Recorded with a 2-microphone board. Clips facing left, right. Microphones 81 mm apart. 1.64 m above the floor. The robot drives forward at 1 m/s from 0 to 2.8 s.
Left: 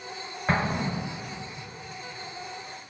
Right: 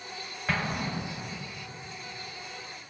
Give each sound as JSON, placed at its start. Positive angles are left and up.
{"t": 0.5, "sound": "an explosion", "side_deg": 30, "distance_m": 1.3}